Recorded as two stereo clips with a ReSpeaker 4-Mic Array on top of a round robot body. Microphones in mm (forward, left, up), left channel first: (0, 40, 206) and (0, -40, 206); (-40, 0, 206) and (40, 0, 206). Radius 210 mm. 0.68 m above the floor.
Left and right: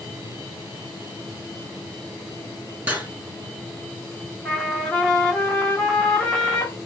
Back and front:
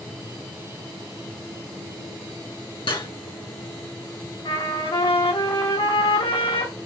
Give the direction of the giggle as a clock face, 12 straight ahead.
I don't hear a giggle.